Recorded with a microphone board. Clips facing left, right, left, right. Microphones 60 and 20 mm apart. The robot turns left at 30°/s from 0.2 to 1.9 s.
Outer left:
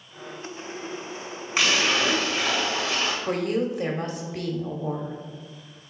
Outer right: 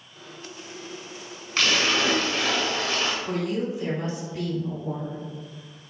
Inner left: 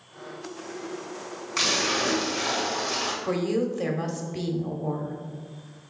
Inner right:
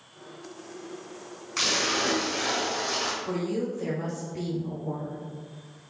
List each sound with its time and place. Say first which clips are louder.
1.6 s a splash: even, inner left 1 dB; 15° left (ahead or behind), 1.3 m; by 3.1 s 5° left (ahead or behind), 1.3 m
3.2 s a woman speaking: outer left 2 dB, inner left 4 dB; 60° left (ahead or behind), 1.4 m